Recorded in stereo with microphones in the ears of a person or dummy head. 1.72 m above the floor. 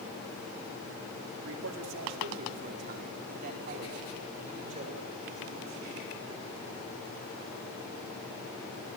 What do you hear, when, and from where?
1.4 s a man speaking: 70° right (ahead or behind), 4 m; by 6.6 s 30° right (ahead or behind), 7 m